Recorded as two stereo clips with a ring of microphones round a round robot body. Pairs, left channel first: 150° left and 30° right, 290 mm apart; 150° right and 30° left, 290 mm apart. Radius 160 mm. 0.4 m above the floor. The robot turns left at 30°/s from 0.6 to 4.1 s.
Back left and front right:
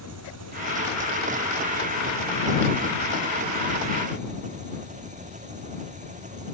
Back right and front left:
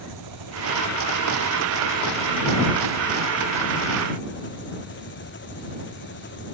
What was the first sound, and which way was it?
An engine running, 10° left.